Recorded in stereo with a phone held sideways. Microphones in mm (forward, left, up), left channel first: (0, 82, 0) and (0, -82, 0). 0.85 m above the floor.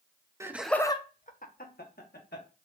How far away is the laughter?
About 0.7 m.